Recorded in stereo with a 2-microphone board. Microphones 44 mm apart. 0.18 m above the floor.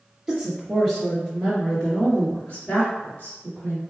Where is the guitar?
No guitar in this recording.